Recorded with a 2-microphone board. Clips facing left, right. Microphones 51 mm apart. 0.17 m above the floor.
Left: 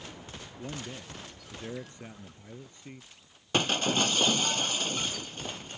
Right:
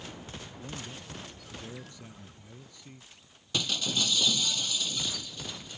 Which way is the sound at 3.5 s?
40° left (ahead or behind).